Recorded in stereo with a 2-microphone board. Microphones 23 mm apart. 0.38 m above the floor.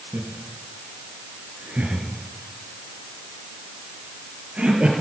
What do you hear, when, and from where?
0.1 s laughter: 75° right (ahead or behind), 4.5 m; by 4.9 s 55° right (ahead or behind), 6 m